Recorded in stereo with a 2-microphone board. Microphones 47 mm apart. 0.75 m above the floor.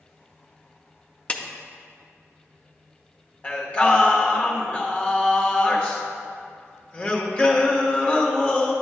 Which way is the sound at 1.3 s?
25° left (ahead or behind).